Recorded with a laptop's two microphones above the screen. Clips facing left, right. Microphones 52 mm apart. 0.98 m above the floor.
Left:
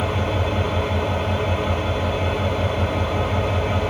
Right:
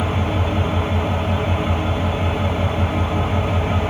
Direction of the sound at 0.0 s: 35° right (ahead or behind).